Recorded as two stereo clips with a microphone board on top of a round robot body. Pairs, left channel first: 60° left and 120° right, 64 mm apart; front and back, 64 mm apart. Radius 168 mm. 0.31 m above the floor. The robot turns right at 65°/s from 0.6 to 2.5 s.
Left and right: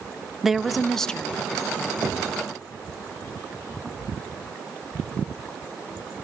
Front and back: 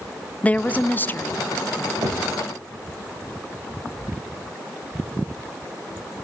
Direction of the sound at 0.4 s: 40° right.